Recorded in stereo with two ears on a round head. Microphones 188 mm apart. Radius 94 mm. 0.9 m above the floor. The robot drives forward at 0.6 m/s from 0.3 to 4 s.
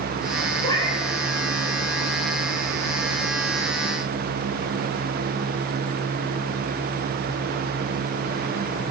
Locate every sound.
0.6 s a cat meowing: 20° left (ahead or behind), 2.5 m